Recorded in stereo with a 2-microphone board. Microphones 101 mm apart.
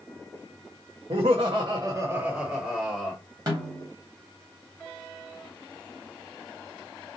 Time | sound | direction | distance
1.1 | laughter | 85° right | 0.7 m
3.5 | a snare drum | 40° right (ahead or behind) | 1.5 m